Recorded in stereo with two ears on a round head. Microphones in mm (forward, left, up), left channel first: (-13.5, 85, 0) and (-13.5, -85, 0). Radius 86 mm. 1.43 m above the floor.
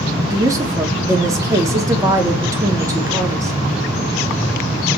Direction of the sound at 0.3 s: 15° right (ahead or behind).